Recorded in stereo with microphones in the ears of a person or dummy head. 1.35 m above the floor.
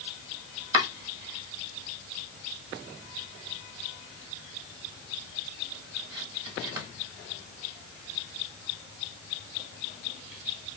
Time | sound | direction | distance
0.7 | chopping | 20° right (ahead or behind) | 1.6 m